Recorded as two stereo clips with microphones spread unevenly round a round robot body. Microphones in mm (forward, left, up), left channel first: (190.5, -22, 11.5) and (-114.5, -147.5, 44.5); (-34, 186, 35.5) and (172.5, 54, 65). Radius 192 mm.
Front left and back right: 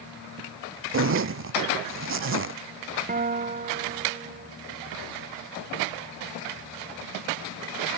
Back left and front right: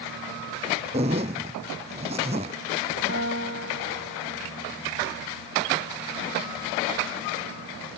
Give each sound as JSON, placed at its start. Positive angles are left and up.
{"t": 0.9, "sound": "a zipper", "azimuth_deg": -105}
{"t": 3.1, "sound": "a guitar", "azimuth_deg": -95}